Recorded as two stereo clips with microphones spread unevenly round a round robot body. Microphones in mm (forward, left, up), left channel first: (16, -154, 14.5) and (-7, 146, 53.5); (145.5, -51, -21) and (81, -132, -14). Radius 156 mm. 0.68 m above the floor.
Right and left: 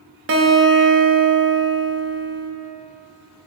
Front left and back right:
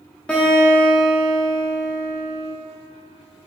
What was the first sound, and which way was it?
A guitar, 120° left.